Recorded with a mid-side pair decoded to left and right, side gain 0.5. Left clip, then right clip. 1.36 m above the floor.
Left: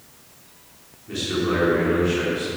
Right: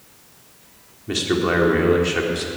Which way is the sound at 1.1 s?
65° right.